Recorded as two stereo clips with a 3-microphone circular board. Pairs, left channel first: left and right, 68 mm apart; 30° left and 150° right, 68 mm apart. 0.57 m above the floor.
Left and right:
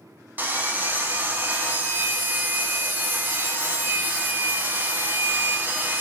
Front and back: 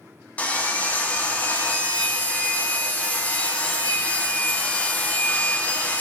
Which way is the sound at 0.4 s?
35° right.